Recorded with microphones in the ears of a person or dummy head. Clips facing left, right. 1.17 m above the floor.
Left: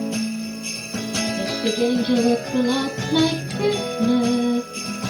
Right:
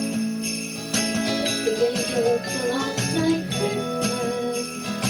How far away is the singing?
About 8.5 m.